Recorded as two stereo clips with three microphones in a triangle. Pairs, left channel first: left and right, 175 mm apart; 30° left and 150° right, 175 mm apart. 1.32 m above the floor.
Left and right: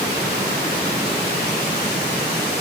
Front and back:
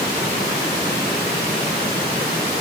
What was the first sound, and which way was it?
Only background noise.